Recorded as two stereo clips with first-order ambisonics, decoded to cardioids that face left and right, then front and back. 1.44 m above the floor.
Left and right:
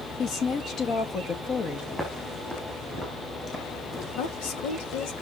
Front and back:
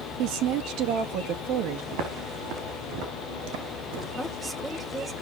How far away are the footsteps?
About 6 m.